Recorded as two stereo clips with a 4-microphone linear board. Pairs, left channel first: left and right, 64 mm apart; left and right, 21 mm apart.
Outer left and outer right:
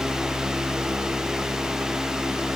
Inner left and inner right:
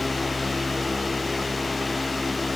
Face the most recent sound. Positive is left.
No sound to turn to.